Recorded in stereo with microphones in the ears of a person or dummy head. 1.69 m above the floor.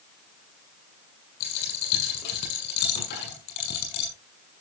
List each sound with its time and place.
1.4 s a dropped coin: 65° left (ahead or behind), 7 m